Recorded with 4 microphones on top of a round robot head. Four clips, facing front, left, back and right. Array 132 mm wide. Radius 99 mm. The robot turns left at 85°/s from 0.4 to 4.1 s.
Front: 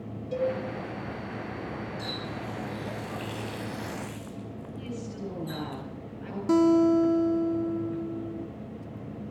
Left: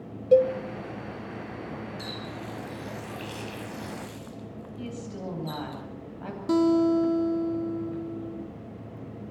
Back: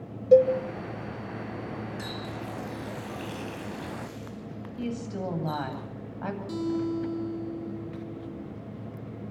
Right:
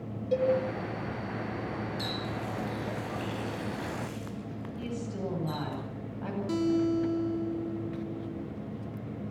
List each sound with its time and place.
0.3 s a cowbell: 145° left, 2 m; by 0.5 s 135° left, 2 m
2.0 s a running tap: 155° right, 6.5 m; by 5.8 s 25° left, 6.5 m
4.8 s a woman speaking: 175° left, 9 m
6.5 s a guitar: 35° left, 1.1 m